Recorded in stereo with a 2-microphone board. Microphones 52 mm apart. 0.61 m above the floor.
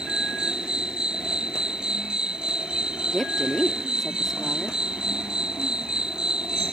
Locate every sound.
0.0 s an insect: 15° right (ahead or behind)
3.1 s a woman speaking: 5° left (ahead or behind)